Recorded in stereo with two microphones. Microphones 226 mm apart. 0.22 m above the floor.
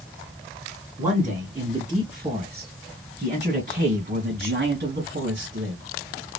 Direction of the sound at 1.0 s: 15° right (ahead or behind).